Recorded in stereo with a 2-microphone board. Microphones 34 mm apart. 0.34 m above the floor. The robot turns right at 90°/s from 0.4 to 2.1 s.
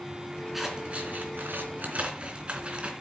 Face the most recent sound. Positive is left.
turn(degrees=-35)  # may be behind; listen again after turning